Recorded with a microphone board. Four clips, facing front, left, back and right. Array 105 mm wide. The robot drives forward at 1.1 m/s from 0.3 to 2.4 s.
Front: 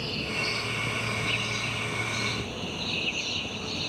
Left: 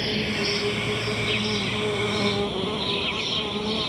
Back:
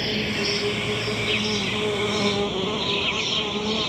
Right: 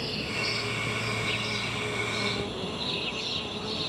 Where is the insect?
140° left; by 3.9 s 150° left.